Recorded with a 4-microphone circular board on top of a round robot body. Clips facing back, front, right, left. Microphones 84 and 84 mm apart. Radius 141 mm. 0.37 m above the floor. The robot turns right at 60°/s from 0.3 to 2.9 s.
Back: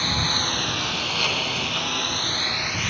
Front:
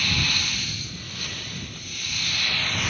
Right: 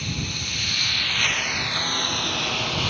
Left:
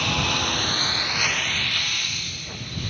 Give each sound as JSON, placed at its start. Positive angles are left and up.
{"t": 0.0, "sound": "a lawn mower", "azimuth_deg": 115}